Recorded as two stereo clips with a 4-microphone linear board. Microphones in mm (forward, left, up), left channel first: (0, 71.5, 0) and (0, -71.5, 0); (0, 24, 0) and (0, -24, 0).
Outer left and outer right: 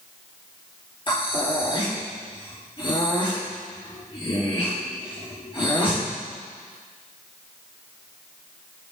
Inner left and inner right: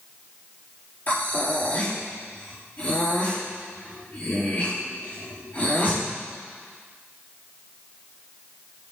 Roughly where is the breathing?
Left.